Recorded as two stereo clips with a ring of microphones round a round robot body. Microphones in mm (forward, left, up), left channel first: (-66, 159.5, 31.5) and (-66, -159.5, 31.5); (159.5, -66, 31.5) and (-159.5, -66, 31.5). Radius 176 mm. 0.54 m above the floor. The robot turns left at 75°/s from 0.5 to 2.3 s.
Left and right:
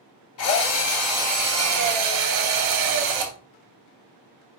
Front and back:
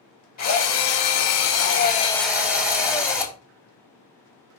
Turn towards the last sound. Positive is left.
turn(degrees=-95)